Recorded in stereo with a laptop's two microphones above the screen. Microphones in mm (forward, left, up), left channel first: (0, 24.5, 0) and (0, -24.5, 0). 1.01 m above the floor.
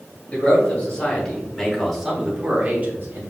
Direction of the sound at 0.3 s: 30° left (ahead or behind).